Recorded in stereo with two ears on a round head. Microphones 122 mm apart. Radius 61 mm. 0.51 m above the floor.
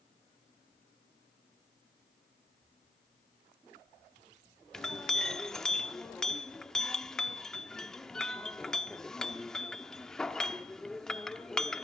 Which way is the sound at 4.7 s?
5° left (ahead or behind).